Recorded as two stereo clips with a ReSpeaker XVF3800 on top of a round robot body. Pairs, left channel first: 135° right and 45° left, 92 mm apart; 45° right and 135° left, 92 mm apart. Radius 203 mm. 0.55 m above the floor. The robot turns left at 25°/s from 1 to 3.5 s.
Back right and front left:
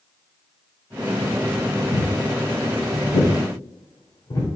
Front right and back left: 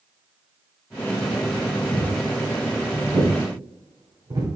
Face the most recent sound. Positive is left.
turn(degrees=180)